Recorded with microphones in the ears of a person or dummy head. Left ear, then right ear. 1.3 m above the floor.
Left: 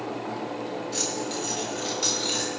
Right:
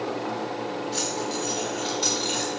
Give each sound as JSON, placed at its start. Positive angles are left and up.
{"t": 0.9, "sound": "keys jangling", "side_deg": -15, "distance_m": 3.0}